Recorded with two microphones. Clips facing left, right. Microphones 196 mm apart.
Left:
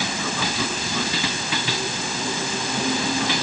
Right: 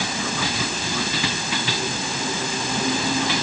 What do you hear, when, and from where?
Only background noise.